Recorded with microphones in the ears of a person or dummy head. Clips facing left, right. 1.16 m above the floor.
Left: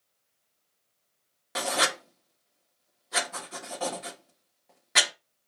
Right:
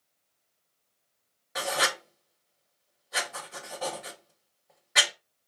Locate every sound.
1.6 s writing: 65° left (ahead or behind), 1.2 m